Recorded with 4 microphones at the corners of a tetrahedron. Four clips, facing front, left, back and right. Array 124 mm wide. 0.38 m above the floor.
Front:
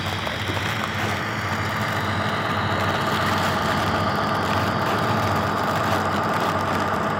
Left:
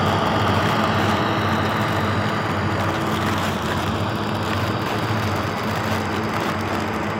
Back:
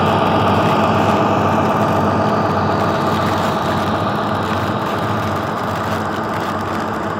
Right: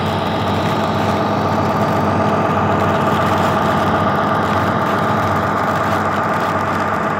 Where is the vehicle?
170° right; by 7.2 s 85° right.